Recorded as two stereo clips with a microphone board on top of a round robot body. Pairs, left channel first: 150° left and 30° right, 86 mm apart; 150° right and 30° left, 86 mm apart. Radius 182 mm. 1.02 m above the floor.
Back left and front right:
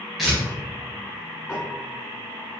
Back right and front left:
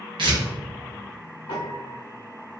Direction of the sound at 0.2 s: 60° left.